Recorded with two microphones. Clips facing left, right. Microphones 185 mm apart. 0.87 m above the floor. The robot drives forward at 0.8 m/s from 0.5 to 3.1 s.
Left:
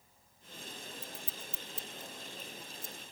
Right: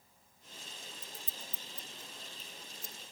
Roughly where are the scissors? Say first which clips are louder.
Left 3 dB; left.